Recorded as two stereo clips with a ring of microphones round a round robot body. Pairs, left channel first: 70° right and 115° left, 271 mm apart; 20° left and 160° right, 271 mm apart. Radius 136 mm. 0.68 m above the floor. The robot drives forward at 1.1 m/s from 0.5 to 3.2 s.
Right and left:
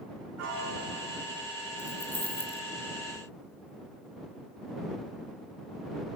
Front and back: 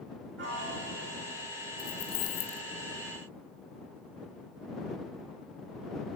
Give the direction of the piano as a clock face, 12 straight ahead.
7 o'clock.